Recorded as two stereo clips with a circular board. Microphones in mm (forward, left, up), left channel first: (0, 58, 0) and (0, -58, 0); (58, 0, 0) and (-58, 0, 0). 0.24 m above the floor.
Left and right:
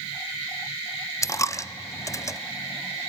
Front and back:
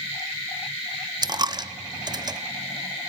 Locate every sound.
1.2 s a dropped coin: 140° left, 0.5 m